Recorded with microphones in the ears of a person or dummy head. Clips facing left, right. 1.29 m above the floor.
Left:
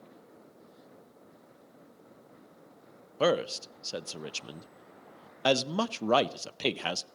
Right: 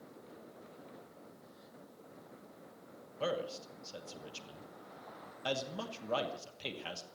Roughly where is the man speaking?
Left.